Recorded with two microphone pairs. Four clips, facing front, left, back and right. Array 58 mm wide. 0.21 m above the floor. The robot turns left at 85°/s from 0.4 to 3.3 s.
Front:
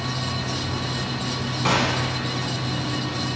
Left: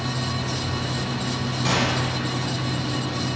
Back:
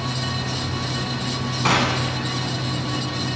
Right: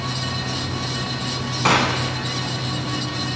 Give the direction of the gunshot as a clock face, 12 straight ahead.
4 o'clock.